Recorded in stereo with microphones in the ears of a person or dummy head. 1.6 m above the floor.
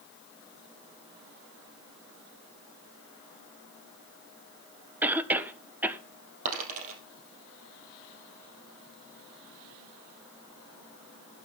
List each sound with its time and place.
5.0 s a cough: 10° right (ahead or behind), 1.3 m
6.5 s a dropped coin: 45° right (ahead or behind), 3 m